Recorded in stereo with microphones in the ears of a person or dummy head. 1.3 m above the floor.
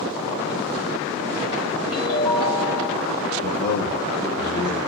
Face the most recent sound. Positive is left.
turn(degrees=40)  # may be behind; listen again after turning